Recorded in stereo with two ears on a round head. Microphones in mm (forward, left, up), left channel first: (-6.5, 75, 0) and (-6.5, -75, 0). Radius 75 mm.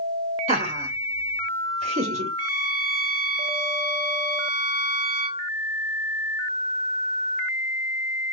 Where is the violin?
40° right (ahead or behind), 3 m.